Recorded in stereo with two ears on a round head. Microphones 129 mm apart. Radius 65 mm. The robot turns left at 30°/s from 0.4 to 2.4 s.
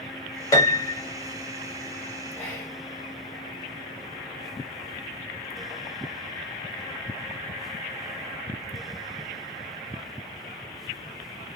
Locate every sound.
0.5 s a piano: 25° left (ahead or behind), 0.7 m; by 1.0 s 10° left (ahead or behind), 0.7 m
2.4 s whispering: 20° left (ahead or behind), 1.4 m; by 2.8 s 15° left (ahead or behind), 1.4 m